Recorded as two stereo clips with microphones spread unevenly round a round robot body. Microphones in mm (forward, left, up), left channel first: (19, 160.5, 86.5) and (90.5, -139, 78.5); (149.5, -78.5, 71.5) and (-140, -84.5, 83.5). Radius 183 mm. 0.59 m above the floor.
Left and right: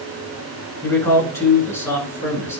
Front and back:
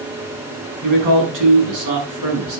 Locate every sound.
0.8 s a man speaking: 175° right, 7 m